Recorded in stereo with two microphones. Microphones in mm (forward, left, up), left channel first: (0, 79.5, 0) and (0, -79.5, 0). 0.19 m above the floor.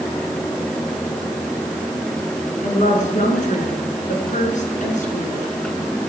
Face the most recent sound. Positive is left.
turn(degrees=55)  # may be behind; listen again after turning